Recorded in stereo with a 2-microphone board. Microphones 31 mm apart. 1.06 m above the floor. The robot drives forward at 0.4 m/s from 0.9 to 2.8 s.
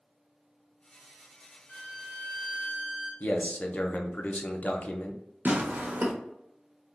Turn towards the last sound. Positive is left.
turn(degrees=-60)  # may be behind; listen again after turning